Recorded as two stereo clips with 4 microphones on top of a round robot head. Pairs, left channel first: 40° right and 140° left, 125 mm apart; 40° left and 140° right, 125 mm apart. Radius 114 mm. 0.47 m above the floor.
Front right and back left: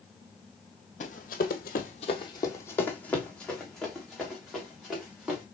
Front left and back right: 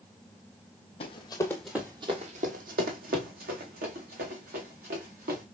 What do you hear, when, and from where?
1.0 s running footsteps: 5° right, 0.8 m; by 5.5 s 135° right, 2.5 m